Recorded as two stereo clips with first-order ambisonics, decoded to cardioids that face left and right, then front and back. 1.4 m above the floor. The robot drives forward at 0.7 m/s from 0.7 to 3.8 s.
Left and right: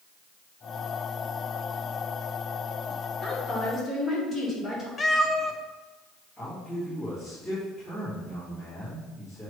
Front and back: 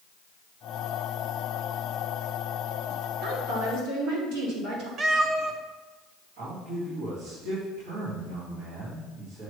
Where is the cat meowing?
150° left, 0.6 m.